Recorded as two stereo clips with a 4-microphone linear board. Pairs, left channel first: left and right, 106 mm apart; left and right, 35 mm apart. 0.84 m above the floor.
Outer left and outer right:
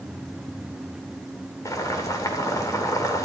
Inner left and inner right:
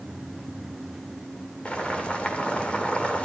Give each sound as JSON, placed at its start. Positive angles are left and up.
{"t": 1.6, "sound": "boiling", "side_deg": 35, "distance_m": 2.0}